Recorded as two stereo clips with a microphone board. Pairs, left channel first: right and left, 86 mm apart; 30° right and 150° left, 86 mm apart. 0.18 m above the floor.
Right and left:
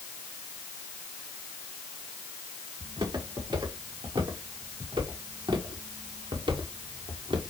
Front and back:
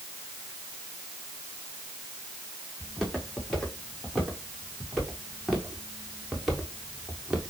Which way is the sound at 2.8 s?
60° left.